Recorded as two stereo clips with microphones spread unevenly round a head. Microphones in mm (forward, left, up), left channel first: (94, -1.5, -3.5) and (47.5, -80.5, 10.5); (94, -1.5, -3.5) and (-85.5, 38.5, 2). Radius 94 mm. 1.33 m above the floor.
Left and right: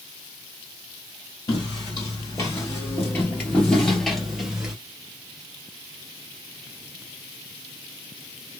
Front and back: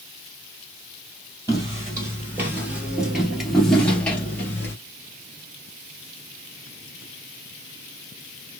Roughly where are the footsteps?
Left.